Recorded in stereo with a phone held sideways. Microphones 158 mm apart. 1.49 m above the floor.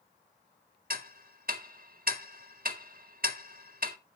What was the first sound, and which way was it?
Ticking, 60° right (ahead or behind).